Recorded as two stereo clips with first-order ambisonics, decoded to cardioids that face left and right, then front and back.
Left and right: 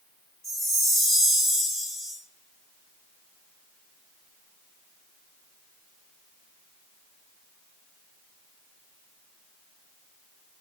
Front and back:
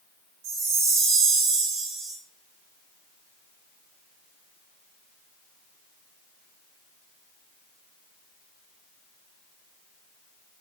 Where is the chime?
170° right, 0.8 m.